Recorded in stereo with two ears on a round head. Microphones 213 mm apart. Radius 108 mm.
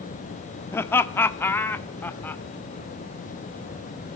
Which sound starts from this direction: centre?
Laughter, at 0.7 s.